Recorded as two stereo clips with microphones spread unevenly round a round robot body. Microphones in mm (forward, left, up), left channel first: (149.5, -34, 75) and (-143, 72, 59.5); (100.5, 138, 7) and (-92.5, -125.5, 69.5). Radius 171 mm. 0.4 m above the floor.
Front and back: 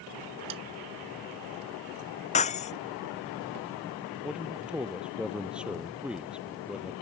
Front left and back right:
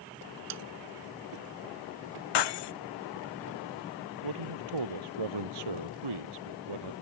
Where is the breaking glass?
50° left.